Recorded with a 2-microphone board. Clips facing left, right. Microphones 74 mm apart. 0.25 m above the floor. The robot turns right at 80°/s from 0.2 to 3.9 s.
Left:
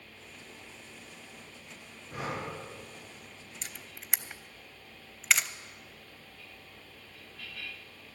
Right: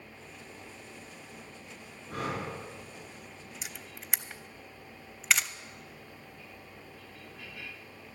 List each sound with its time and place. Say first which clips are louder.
2.1 s breathing: right 2 dB; 115° right, 4 m; by 2.5 s 80° right, 4 m
3.6 s a camera shutter: right 2 dB; 10° right (ahead or behind), 0.5 m; by 5.5 s centre (ahead or behind), 0.5 m